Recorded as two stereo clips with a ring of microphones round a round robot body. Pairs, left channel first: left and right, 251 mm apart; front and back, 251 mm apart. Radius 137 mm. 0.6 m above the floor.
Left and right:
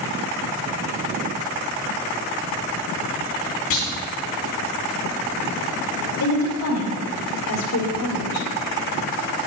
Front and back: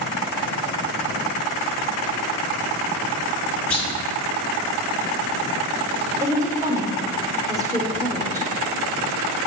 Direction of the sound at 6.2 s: 105° left.